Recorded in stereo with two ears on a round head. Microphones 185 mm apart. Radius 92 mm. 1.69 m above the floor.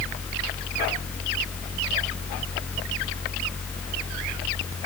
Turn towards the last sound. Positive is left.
No sound to turn to.